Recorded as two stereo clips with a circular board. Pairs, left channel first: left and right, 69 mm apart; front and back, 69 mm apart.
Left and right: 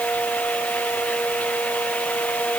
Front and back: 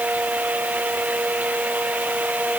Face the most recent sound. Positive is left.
No sound to turn to.